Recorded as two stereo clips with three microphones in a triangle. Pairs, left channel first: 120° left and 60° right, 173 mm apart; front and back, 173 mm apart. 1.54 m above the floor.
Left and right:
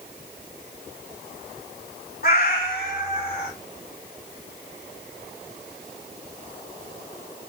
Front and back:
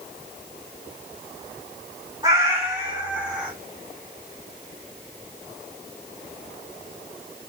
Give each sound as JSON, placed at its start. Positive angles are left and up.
{"t": 2.2, "sound": "a cat meowing", "azimuth_deg": 115, "distance_m": 1.5}